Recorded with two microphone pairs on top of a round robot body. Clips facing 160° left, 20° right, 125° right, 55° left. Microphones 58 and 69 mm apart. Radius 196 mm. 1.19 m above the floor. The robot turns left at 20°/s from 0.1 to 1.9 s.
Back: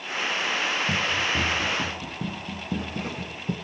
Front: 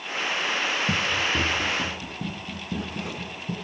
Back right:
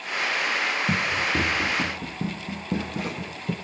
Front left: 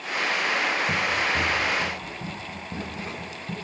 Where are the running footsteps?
80° right, 2.5 m; by 3.5 s 155° right, 1.6 m.